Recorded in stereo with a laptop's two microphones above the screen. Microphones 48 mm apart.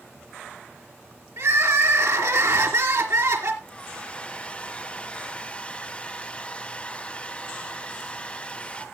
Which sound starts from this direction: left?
A hair dryer, at 3.6 s.